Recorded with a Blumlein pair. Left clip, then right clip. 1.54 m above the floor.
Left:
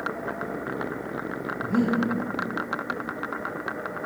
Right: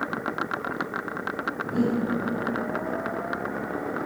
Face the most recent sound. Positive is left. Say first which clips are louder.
# left 3 dB
turn(degrees=25)